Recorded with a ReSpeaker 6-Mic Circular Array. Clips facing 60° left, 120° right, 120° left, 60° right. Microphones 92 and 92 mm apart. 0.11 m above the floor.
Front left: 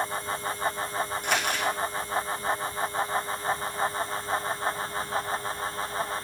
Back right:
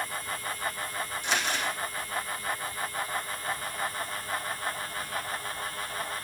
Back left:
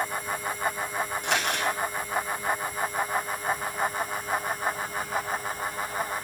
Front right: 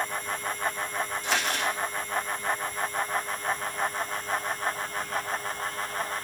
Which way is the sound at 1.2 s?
95° left.